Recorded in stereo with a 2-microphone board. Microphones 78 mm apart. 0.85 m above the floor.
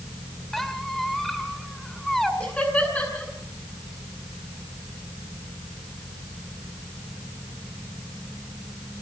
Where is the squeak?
5° left (ahead or behind), 2 m.